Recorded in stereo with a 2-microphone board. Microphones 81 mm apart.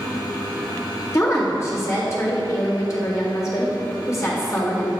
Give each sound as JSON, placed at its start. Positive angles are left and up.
{"t": 1.1, "sound": "a woman speaking", "side_deg": 35, "distance_m": 3.0}